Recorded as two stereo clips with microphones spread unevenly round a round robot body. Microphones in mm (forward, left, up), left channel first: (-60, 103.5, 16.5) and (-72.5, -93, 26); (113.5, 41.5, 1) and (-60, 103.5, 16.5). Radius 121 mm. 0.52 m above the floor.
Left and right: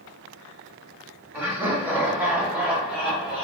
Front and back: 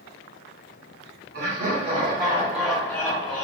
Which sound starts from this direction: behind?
Laughter, at 1.3 s.